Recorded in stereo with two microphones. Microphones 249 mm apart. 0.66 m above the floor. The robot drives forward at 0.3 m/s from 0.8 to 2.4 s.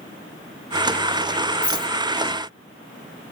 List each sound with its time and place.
1.6 s a rattle: 40° right (ahead or behind), 1.3 m; by 1.9 s 45° right (ahead or behind), 1.2 m